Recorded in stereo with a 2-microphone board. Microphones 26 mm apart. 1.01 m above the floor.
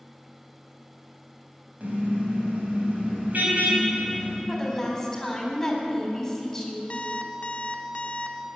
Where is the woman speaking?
20° left (ahead or behind), 3.5 m.